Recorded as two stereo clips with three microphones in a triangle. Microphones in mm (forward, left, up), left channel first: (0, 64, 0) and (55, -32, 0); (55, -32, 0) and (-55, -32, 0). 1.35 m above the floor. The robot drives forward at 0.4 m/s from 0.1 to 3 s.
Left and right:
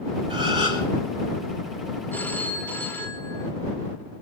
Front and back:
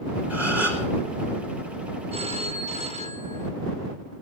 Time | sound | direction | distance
0.3 | a gasp | 105° right | 4.5 m
2.1 | a phone ringing | 165° right | 1.5 m